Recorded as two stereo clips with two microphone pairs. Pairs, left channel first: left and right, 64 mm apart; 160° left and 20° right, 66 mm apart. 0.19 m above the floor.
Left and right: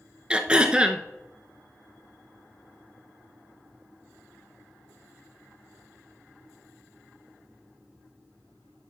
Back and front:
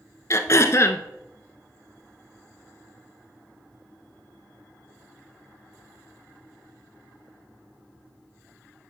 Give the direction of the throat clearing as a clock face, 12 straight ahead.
5 o'clock.